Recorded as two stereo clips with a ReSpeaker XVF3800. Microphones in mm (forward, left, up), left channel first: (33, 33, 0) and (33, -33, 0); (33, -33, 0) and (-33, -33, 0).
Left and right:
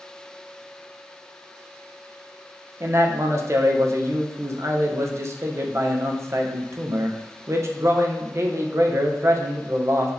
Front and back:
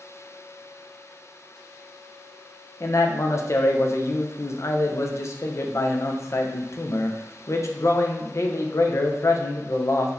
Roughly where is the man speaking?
Ahead right.